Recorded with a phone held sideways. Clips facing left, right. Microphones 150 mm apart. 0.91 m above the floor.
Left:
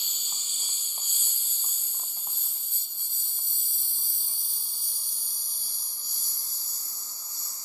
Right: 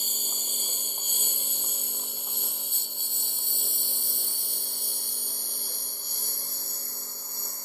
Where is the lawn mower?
55° right (ahead or behind); by 7.7 s 65° right (ahead or behind).